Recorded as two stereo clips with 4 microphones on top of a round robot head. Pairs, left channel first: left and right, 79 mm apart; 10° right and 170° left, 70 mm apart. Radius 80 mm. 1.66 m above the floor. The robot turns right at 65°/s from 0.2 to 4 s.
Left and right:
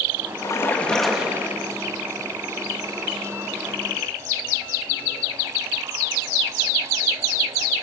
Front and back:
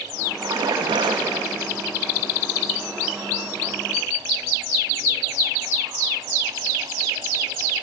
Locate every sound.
0.4 s a splash: 135° left, 2.5 m; by 1.6 s 145° right, 2.5 m